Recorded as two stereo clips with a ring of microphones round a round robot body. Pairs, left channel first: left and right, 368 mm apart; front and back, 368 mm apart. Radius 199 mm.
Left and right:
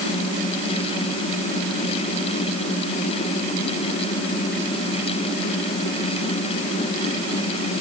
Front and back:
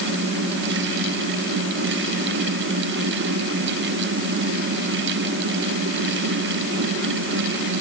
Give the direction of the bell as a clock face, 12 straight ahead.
No bell in this recording.